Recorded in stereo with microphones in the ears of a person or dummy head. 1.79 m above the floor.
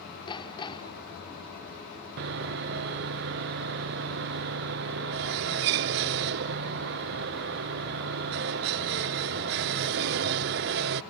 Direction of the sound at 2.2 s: 45° right (ahead or behind).